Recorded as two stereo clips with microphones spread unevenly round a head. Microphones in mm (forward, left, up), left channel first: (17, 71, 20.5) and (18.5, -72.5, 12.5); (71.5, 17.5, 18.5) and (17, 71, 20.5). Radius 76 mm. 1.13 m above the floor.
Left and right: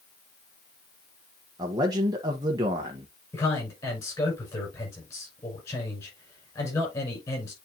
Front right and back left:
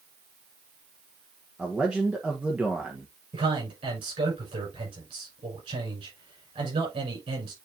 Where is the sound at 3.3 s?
160° left, 7 m.